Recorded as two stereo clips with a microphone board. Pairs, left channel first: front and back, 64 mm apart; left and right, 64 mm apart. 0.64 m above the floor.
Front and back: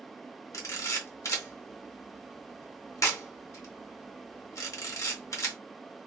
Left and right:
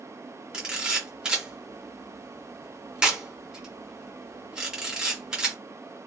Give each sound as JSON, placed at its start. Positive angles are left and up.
{"t": 0.5, "sound": "a camera shutter", "azimuth_deg": -15, "distance_m": 1.0}